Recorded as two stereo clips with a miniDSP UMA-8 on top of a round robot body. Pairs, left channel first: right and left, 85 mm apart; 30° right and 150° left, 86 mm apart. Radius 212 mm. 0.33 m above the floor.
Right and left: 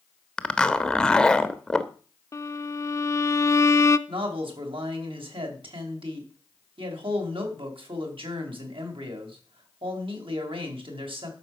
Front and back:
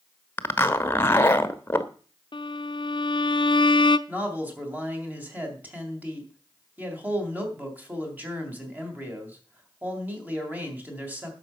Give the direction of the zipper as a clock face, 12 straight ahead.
1 o'clock.